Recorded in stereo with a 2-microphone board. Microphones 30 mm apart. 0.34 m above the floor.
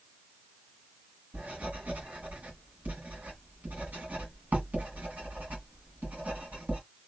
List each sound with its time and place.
1.3 s writing: 65° right (ahead or behind), 1.8 m